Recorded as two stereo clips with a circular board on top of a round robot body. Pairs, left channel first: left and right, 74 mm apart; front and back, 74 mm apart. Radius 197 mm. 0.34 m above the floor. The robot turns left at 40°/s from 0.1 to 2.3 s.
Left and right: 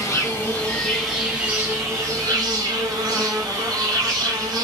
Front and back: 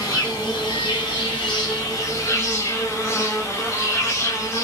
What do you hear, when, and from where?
0.0 s an insect: 35° left, 0.7 m; by 4.6 s 55° right, 0.7 m